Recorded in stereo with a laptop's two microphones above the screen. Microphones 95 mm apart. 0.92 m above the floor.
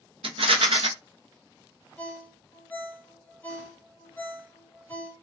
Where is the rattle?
70° right (ahead or behind), 0.5 m.